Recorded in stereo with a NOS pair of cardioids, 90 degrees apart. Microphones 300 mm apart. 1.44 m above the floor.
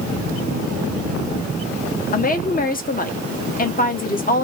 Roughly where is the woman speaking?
Ahead left.